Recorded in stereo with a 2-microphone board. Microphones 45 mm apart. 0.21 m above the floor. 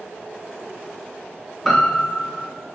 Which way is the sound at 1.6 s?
5° left (ahead or behind).